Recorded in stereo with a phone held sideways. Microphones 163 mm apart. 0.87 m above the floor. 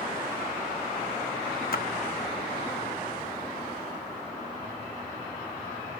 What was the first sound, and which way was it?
A splash, 65° left (ahead or behind).